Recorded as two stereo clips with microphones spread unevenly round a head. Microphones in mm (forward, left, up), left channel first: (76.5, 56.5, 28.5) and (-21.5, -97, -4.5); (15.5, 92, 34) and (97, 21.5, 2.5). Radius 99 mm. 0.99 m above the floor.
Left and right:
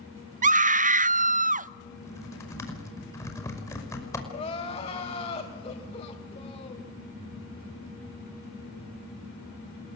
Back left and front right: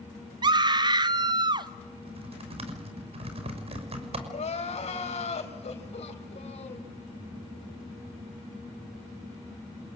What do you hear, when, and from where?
0.4 s a scream: 85° right, 0.7 m
2.0 s typing on a keyboard: 20° right, 5.5 m
4.3 s crying: 120° left, 4 m